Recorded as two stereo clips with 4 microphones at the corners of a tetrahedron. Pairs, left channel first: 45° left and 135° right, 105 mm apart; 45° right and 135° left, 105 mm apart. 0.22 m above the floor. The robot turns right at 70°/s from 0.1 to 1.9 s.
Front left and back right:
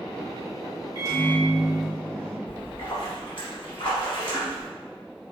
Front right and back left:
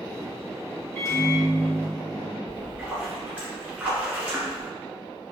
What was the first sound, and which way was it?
A microwave, 100° right.